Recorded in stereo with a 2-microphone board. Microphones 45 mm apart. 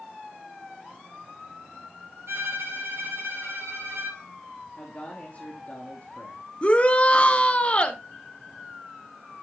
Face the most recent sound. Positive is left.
turn(degrees=30)  # may be behind; listen again after turning